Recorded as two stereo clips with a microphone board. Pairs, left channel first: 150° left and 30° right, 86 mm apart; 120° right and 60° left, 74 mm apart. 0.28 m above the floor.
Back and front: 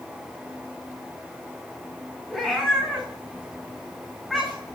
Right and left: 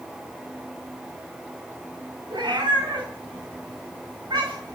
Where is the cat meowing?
60° left, 7 m.